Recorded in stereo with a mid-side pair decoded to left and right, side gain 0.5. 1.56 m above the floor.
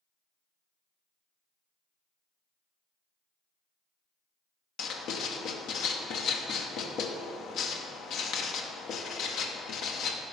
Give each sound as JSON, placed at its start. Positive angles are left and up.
{"t": 4.8, "sound": "writing", "azimuth_deg": 65, "distance_m": 1.0}